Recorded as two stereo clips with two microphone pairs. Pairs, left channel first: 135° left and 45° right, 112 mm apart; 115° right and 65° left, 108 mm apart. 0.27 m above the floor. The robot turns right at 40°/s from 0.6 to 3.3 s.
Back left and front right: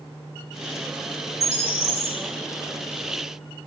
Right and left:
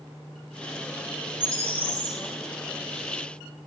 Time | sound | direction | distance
1.4 | a bird | 120° left | 0.9 m